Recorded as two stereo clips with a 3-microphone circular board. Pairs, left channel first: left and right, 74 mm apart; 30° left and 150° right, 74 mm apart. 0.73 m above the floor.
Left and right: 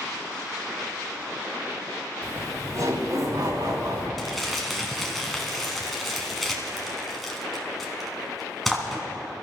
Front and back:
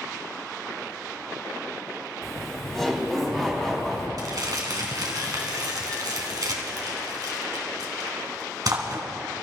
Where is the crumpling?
Straight behind, 2 m.